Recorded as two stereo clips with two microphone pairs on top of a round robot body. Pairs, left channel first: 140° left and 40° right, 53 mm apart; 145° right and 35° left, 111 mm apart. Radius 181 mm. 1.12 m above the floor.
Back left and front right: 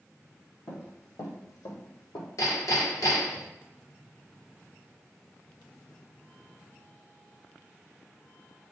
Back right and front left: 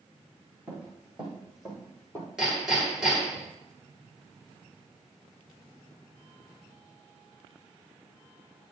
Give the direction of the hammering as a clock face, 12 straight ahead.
8 o'clock.